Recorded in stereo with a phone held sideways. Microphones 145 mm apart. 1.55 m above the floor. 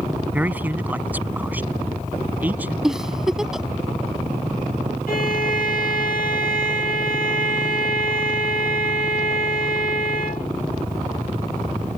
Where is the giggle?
5° right (ahead or behind).